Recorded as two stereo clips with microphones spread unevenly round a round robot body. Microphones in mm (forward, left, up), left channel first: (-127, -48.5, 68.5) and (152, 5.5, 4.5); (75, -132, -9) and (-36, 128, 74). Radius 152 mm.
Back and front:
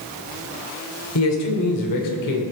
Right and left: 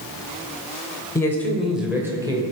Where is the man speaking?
140° right, 2 m; by 2.4 s 165° right, 2.5 m.